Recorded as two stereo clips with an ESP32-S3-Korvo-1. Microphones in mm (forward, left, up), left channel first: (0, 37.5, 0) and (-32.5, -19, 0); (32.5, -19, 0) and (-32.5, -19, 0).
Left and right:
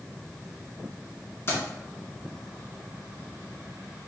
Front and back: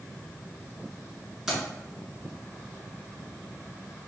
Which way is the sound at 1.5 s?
95° left.